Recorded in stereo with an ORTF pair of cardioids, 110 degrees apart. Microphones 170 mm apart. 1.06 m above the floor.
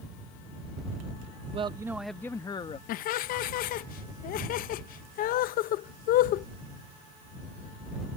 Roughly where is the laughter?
Ahead left.